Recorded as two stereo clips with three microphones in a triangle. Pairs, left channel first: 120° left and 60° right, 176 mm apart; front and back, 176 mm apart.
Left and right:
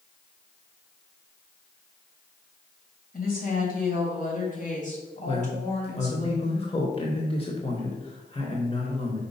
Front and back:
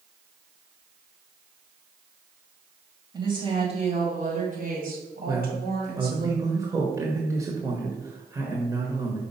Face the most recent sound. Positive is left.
turn(degrees=125)